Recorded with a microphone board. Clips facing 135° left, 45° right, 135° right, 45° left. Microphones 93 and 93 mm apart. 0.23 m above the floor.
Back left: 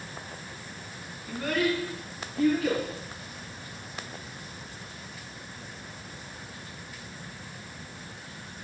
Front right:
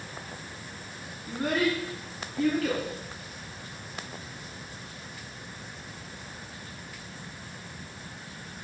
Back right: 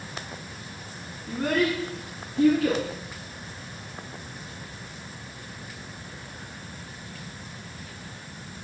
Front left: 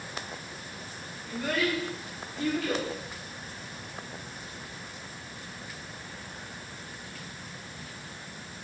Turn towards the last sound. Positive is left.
turn(degrees=-140)